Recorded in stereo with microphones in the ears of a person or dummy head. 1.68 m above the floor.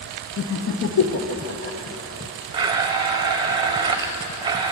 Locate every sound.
0.4 s laughter: 60° left (ahead or behind), 0.9 m
2.5 s a blender: 25° right (ahead or behind), 0.8 m